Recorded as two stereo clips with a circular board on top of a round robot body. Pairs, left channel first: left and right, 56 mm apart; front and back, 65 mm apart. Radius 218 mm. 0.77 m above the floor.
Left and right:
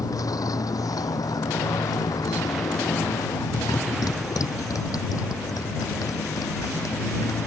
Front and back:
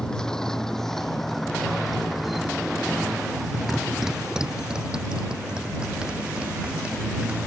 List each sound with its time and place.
0.0 s a motorcycle: 80° left; by 7.5 s 110° left